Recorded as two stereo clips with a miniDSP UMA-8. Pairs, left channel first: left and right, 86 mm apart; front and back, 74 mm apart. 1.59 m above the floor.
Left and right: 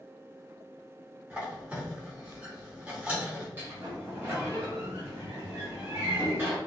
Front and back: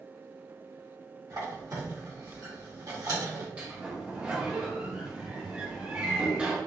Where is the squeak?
160° right, 0.9 m.